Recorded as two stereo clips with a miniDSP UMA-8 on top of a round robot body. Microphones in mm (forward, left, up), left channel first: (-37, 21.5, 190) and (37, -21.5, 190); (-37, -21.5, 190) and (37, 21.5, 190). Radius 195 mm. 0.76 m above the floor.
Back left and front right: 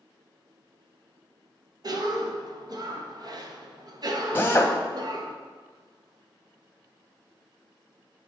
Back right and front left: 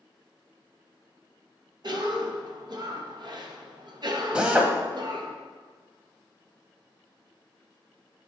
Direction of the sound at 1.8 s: Straight ahead.